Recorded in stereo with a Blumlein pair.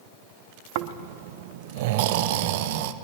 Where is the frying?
I don't hear frying.